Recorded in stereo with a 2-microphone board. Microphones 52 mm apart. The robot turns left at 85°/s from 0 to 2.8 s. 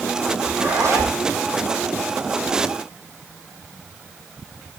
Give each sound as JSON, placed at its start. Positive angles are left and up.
{"t": 0.5, "sound": "a zipper", "azimuth_deg": -30, "distance_m": 1.3}